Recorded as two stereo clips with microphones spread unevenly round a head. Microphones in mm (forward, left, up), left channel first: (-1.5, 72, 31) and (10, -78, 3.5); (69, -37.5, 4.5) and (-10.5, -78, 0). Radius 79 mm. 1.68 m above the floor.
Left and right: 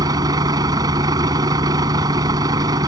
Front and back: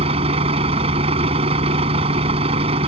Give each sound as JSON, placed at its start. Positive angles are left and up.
{"t": 0.0, "sound": "a vehicle", "azimuth_deg": -155}